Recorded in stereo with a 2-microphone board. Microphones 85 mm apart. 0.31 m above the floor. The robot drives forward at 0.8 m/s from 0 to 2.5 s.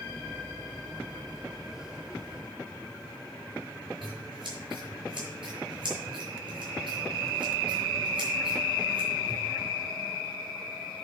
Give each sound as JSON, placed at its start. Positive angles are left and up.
{"t": 4.0, "sound": "scissors", "side_deg": -70, "distance_m": 6.5}